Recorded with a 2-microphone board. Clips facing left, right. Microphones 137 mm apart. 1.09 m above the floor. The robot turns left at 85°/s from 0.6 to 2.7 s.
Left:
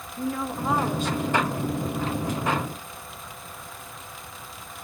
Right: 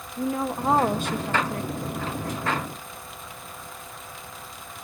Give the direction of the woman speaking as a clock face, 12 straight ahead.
1 o'clock.